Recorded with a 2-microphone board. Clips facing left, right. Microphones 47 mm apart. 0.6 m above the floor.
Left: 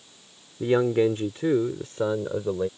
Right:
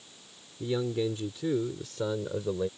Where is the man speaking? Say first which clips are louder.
Left 9 dB; 60° left (ahead or behind); by 2.7 s 15° left (ahead or behind).